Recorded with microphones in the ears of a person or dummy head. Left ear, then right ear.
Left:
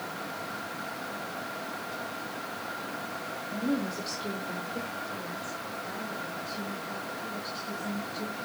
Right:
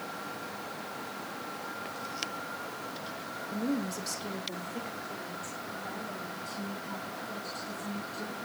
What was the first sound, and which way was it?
A woman speaking, 40° right (ahead or behind).